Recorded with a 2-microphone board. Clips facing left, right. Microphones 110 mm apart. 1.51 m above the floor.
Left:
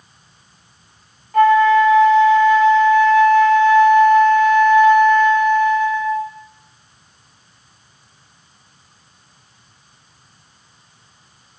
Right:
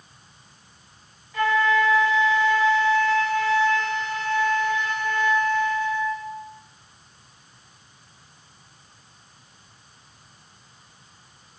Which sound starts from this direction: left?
A flute, at 1.3 s.